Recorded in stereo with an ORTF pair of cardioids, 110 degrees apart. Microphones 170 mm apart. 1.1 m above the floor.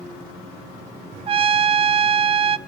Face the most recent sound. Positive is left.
turn(degrees=-35)